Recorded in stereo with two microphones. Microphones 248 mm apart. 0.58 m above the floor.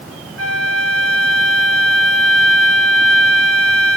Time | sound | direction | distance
0.4 | a flute | 65° right (ahead or behind) | 2 m